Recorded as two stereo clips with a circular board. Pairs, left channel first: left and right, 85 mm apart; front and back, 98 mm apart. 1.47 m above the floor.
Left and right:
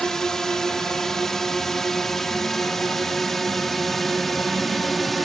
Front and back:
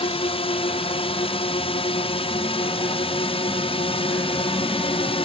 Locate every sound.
0.0 s a drone: 5° left; by 5.2 s straight ahead